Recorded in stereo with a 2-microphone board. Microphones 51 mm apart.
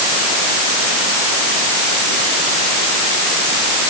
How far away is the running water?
I don't hear running water.